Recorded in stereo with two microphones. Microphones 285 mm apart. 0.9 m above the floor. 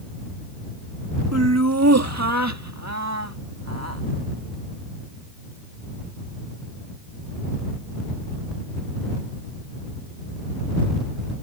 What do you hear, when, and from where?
1.3 s laughter: 60° right (ahead or behind)